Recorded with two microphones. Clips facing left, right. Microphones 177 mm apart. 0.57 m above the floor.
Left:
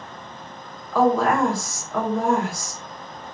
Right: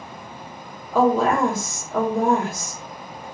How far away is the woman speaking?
About 1.2 m.